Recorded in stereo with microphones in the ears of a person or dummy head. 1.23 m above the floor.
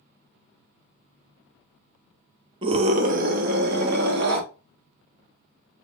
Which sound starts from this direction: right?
A scream, at 2.6 s.